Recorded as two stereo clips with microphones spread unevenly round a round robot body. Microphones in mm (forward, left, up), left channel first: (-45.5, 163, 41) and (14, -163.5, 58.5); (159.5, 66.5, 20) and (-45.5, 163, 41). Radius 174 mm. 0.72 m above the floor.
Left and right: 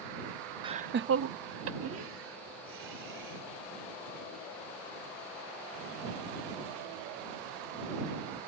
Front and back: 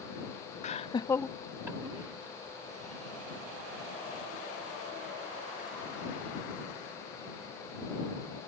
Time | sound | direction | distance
0.6 | laughter | 5° right | ?